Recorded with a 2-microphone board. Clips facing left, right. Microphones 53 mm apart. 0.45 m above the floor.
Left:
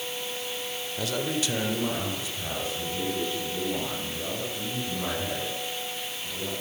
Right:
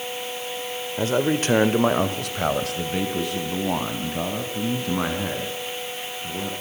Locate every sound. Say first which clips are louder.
1.0 s a man speaking: right 8 dB; 30° right (ahead or behind), 1.6 m; by 6.5 s 75° right (ahead or behind), 6.5 m